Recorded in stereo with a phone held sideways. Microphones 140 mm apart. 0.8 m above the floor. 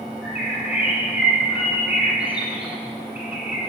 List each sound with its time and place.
0.2 s a bird: 10° right (ahead or behind), 3.5 m